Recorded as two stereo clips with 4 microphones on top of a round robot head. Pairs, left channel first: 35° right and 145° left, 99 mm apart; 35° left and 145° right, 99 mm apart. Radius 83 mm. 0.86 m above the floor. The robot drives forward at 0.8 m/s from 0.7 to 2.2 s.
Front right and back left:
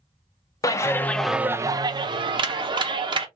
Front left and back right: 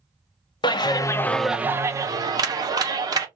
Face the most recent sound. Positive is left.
turn(degrees=170)